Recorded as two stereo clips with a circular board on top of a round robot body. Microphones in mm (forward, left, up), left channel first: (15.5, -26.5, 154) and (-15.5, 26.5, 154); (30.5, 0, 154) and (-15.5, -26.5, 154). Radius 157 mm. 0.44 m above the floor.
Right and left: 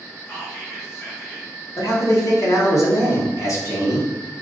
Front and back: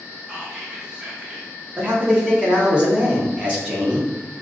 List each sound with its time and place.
0.3 s whispering: 90° right, 1.6 m
1.8 s a man speaking: 85° right, 1.9 m